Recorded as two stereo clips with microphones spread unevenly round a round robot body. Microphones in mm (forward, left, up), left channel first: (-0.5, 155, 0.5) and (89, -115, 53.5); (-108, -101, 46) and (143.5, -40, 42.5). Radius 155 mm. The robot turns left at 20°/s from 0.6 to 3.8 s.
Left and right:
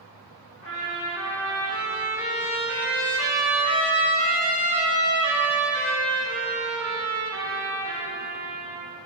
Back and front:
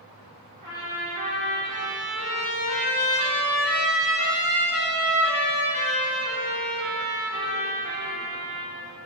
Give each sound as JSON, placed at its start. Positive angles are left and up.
{"t": 0.6, "sound": "a trumpet", "azimuth_deg": 125, "distance_m": 1.2}